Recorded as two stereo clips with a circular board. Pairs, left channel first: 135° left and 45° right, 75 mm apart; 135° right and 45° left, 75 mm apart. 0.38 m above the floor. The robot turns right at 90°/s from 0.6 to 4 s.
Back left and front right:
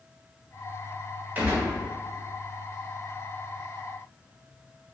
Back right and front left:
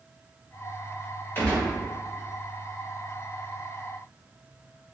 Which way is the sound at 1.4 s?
95° right.